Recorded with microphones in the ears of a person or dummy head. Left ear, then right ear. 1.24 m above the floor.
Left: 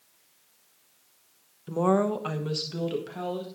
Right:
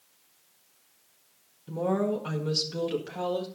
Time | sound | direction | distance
1.7 | a woman speaking | 55° left (ahead or behind) | 1.1 m